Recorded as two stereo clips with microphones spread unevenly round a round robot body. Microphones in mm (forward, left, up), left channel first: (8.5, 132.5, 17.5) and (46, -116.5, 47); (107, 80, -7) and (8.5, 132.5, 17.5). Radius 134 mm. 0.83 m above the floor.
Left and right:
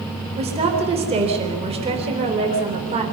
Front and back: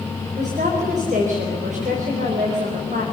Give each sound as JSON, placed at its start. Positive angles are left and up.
{"t": 0.4, "sound": "a woman speaking", "azimuth_deg": -150, "distance_m": 4.0}